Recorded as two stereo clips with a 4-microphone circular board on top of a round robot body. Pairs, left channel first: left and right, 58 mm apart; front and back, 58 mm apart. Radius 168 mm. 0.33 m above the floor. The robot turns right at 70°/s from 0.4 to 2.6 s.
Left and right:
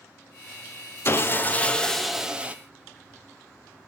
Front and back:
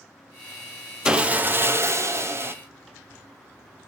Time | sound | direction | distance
1.1 | sawing | 110° left | 1.0 m